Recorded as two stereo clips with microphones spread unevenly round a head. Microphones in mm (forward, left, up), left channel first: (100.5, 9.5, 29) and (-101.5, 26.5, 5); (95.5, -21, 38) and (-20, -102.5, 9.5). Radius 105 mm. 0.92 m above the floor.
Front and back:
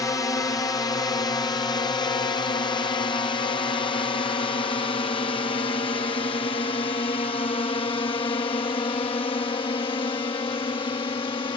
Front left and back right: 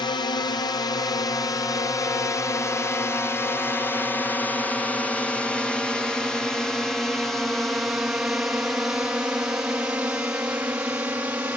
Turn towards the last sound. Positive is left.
turn(degrees=-75)